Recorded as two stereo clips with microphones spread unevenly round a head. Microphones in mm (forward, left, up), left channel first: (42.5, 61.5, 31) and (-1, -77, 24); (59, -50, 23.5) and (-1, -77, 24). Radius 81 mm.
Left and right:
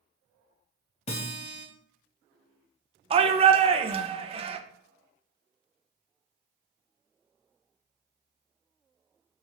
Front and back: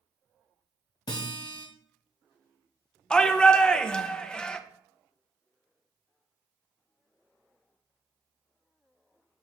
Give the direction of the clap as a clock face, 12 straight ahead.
I don't hear a clap.